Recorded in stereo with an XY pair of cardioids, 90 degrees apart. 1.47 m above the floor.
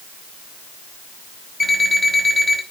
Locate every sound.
1.6 s an alarm clock: 35° left, 5 m